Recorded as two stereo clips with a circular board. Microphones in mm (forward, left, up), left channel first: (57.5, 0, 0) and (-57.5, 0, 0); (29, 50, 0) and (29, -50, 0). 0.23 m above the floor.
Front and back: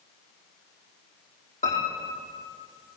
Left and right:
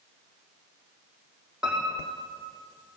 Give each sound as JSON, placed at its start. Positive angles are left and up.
{"t": 1.6, "sound": "a piano", "azimuth_deg": -5, "distance_m": 5.0}